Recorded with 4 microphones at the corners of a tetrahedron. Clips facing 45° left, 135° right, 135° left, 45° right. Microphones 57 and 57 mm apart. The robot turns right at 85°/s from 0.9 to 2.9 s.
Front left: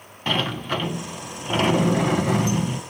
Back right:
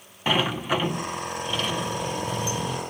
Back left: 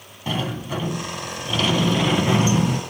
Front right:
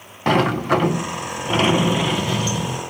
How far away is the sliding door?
About 0.7 m.